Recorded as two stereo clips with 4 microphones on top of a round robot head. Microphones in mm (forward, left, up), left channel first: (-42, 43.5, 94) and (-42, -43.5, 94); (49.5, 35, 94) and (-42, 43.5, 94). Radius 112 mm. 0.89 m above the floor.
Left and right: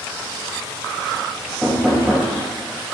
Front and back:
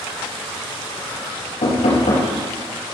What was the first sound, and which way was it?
Knocking, 5° right.